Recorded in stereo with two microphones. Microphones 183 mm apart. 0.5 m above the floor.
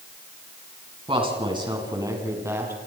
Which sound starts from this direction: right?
A woman speaking, at 1.1 s.